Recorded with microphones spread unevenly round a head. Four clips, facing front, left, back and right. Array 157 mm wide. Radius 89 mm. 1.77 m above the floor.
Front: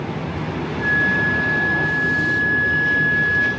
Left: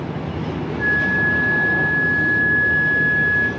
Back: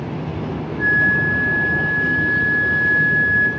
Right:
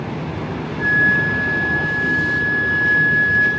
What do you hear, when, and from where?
0.8 s a flute: 95° right, 4.5 m